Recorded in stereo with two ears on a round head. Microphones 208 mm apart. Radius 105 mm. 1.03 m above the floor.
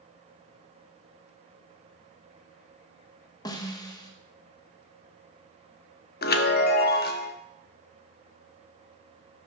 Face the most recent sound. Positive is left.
turn(degrees=45)  # may be behind; listen again after turning